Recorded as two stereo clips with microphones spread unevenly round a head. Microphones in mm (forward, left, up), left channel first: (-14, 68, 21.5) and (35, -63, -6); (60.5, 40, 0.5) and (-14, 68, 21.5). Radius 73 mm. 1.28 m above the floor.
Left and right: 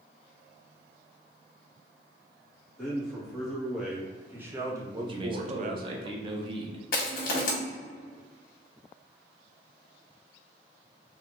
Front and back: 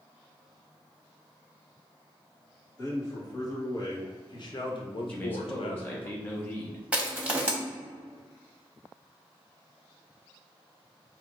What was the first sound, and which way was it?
A man speaking, 25° left.